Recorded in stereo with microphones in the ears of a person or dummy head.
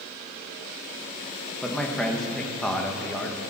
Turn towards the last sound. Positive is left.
turn(degrees=5)  # may be behind; listen again after turning